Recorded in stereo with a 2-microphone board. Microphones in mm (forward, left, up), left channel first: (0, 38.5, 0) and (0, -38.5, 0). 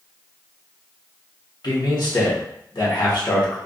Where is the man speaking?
65° left (ahead or behind), 1.1 m.